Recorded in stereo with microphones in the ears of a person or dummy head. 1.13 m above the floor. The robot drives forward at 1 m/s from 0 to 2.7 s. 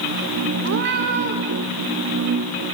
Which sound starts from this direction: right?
A cat meowing, at 0.6 s.